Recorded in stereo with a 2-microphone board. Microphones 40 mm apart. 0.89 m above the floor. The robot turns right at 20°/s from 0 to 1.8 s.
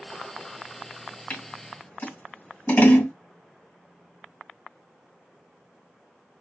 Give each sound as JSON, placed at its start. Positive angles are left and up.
{"t": 1.3, "sound": "scissors", "side_deg": 45, "distance_m": 2.5}